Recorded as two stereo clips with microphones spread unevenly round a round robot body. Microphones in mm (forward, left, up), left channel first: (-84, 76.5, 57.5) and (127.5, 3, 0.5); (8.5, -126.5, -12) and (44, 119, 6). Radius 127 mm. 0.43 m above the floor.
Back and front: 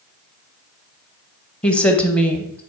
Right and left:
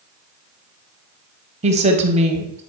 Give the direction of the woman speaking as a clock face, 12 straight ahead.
10 o'clock.